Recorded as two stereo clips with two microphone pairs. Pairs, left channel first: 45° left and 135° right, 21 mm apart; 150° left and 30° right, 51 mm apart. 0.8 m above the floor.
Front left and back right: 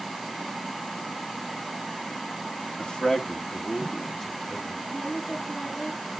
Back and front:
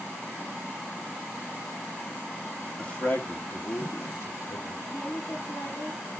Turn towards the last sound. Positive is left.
turn(degrees=125)